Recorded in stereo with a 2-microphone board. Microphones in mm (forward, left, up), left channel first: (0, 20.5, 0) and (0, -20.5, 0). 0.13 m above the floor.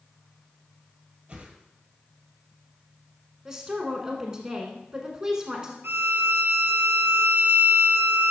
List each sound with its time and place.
1.3 s a whoosh: 25° right (ahead or behind), 1.3 m
3.5 s a woman speaking: 15° right (ahead or behind), 1.3 m
5.8 s a violin: 70° right (ahead or behind), 0.6 m